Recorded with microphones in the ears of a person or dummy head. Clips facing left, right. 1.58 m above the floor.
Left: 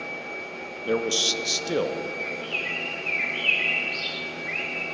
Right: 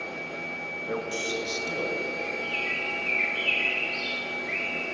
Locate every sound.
0.9 s a man speaking: 45° left (ahead or behind), 0.8 m; by 2.1 s 80° left, 0.7 m
2.2 s a bird: 10° left (ahead or behind), 1.8 m